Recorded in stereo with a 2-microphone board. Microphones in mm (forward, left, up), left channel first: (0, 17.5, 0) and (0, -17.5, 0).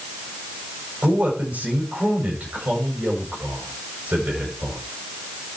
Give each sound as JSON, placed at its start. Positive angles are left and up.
{"t": 1.0, "sound": "a man speaking", "side_deg": -60, "distance_m": 8.0}